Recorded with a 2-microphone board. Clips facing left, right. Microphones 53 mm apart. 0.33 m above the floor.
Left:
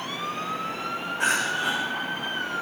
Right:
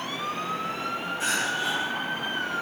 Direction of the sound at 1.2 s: 55° left (ahead or behind).